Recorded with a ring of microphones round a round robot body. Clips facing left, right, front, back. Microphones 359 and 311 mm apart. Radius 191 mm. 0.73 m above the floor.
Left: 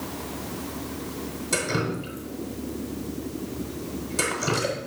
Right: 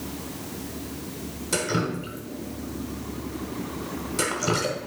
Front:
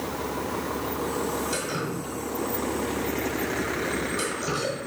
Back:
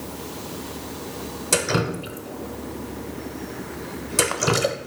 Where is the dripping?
Straight behind, 0.7 m.